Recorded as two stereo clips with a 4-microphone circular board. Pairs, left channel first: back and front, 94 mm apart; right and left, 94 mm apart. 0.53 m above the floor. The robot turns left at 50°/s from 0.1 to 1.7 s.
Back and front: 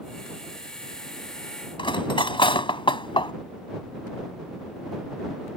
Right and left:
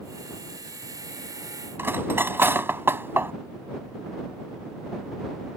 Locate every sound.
1.8 s cutlery clinking: 155° left